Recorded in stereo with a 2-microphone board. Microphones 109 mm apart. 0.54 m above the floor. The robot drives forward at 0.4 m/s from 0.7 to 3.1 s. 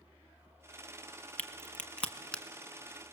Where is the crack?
15° left (ahead or behind), 0.9 m; by 2.4 s 10° left (ahead or behind), 1.3 m.